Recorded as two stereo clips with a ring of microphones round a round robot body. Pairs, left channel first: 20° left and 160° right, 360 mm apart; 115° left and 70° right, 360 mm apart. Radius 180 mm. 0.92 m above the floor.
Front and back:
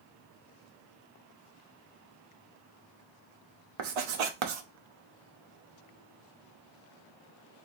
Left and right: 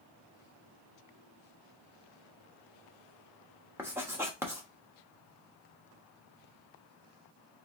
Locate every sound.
3.8 s writing: 150° right, 0.9 m